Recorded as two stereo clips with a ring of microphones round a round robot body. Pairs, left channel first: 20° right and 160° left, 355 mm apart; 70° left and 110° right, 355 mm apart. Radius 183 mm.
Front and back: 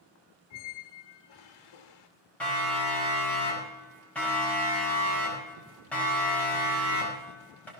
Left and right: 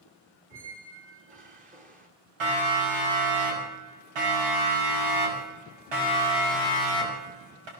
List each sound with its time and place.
0.5 s a squeak: 45° right, 1.6 m
2.4 s a siren: 110° right, 8 m